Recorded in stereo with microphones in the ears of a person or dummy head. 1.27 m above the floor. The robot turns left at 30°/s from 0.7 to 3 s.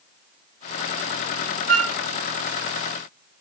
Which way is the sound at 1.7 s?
85° right.